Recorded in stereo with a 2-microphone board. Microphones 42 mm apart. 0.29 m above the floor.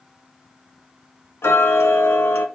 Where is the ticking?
80° left, 0.7 m.